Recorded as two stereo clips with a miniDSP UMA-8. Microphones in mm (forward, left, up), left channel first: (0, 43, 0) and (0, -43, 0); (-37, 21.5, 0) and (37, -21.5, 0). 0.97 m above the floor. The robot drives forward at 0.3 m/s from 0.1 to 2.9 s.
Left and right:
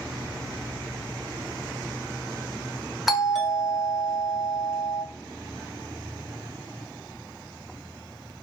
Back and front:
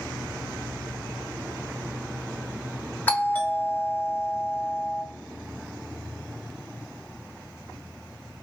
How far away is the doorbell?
About 0.8 m.